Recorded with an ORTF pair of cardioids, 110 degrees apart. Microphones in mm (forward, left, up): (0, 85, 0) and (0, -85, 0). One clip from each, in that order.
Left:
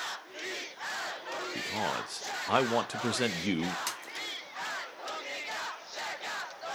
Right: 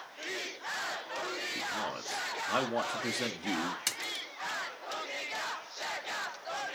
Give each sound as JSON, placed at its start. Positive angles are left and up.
{"t": 1.6, "sound": "a man speaking", "azimuth_deg": 35, "distance_m": 0.6}
{"t": 3.9, "sound": "a splash", "azimuth_deg": -20, "distance_m": 1.1}